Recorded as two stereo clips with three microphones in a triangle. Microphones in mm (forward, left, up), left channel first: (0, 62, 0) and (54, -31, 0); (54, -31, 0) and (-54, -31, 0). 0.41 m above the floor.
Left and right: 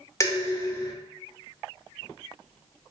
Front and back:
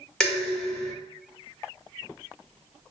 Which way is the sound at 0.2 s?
75° left.